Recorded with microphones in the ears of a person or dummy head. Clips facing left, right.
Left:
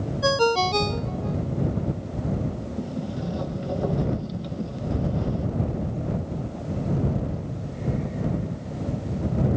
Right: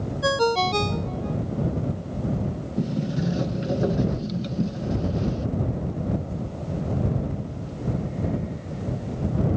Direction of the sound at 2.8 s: 20° right (ahead or behind).